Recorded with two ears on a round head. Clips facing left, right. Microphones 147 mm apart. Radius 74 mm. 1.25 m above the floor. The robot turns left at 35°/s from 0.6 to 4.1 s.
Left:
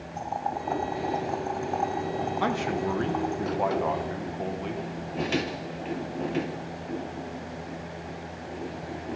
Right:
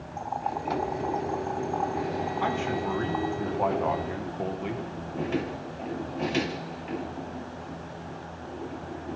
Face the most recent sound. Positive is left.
turn(degrees=-5)